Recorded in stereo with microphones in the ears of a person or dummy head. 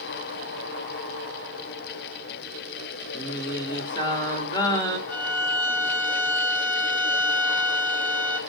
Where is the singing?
30° left (ahead or behind), 1.3 m.